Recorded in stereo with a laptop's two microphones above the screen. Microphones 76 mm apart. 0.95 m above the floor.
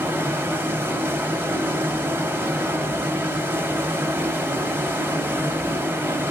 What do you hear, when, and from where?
0.0 s running water: 25° right (ahead or behind), 0.8 m